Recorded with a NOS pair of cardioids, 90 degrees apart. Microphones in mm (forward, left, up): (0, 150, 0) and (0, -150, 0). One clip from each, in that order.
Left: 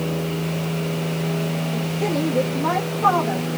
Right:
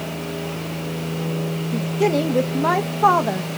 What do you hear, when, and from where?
1.7 s a woman speaking: 40° right, 0.9 m